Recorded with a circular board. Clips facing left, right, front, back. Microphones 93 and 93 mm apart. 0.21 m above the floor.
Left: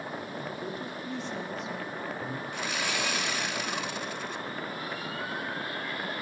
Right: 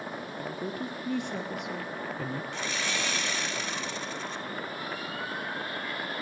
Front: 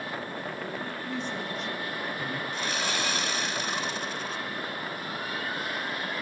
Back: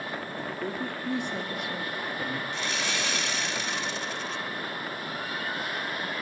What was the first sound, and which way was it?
A woman speaking, 115° right.